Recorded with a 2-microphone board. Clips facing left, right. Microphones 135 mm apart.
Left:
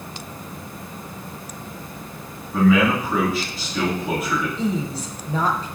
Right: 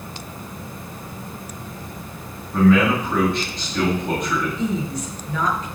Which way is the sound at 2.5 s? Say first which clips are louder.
Right 1 dB; 5° left (ahead or behind).